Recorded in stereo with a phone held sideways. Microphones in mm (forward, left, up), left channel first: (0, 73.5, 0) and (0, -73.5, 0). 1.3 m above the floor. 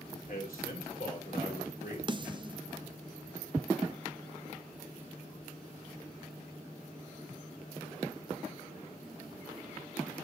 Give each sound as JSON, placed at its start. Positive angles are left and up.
{"t": 0.3, "sound": "a man speaking", "side_deg": 70, "distance_m": 3.5}
{"t": 2.1, "sound": "a snare drum", "side_deg": -35, "distance_m": 0.5}